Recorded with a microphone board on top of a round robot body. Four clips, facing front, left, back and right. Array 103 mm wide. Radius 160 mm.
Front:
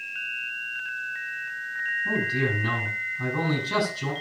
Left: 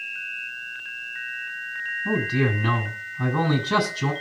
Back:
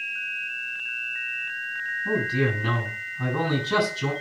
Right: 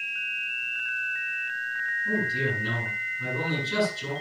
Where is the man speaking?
100° left, 6 m.